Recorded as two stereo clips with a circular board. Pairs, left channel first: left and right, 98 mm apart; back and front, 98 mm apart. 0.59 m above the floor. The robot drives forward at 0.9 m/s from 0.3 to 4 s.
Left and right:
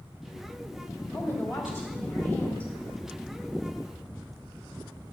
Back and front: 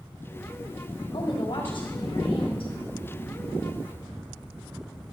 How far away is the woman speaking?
About 3 m.